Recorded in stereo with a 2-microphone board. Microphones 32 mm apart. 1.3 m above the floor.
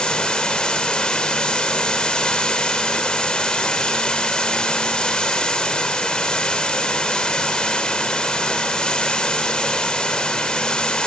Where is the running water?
25° left (ahead or behind), 3.5 m.